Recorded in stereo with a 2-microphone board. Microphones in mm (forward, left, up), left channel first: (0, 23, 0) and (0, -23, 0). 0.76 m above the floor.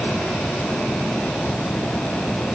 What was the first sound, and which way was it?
Only background noise.